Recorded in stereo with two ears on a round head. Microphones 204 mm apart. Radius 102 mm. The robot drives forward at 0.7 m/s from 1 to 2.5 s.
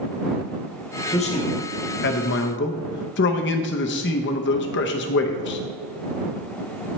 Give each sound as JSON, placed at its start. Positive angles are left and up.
{"t": 1.1, "sound": "a man speaking", "side_deg": 25, "distance_m": 1.1}